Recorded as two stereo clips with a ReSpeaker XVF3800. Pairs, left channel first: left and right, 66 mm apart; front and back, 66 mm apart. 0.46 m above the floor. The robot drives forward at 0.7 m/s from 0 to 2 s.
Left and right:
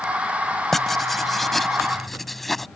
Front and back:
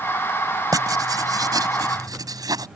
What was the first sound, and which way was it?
Writing, 175° left.